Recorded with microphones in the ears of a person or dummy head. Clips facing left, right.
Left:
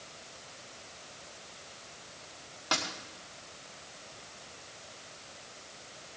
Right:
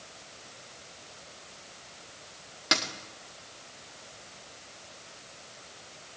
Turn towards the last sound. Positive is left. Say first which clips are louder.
# right 3 dB
turn(degrees=-30)  # may be behind; listen again after turning